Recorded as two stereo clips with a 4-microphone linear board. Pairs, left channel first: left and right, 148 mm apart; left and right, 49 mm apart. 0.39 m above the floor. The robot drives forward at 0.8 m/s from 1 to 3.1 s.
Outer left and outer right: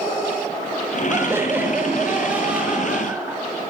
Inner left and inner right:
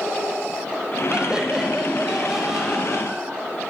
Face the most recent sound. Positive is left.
turn(degrees=-10)  # may be behind; listen again after turning